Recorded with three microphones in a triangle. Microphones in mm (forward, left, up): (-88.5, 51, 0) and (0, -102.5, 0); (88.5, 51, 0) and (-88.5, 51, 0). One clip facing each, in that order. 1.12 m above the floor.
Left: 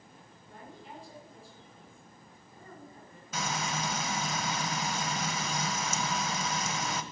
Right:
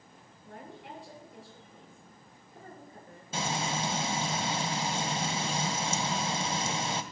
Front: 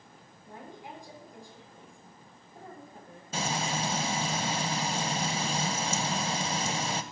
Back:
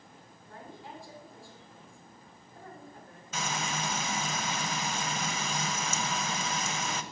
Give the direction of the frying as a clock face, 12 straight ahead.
1 o'clock.